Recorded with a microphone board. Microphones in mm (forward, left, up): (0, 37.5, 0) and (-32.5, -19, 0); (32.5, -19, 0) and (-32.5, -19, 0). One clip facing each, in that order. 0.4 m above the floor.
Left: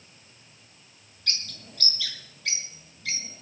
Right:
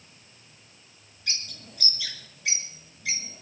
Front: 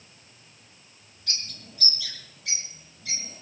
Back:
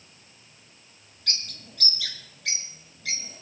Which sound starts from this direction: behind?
A bird, at 1.3 s.